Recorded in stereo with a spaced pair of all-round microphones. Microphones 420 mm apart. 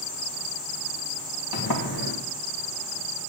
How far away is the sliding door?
About 1.9 m.